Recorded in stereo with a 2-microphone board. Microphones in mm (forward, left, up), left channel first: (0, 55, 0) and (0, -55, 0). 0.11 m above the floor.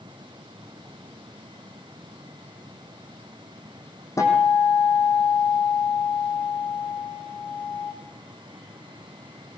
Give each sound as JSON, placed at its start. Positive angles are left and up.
{"t": 4.2, "sound": "a guitar", "side_deg": 30, "distance_m": 5.5}